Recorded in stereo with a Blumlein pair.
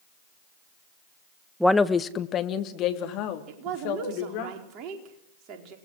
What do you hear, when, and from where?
1.6 s a woman speaking: straight ahead, 1.0 m; by 4.5 s 45° left, 4.5 m
3.5 s a woman speaking: 35° right, 4.5 m